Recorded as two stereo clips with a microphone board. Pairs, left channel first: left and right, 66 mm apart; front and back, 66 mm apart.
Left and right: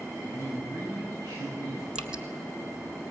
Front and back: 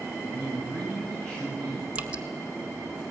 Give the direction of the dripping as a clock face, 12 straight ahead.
5 o'clock.